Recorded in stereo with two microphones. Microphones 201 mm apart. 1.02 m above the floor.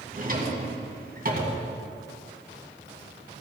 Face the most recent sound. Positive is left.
turn(degrees=-45)  # may be behind; listen again after turning